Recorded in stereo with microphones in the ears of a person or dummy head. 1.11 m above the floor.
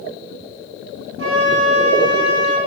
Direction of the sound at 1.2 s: 75° right (ahead or behind).